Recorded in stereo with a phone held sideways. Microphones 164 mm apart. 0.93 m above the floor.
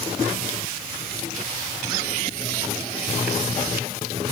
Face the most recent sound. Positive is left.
No sound to turn to.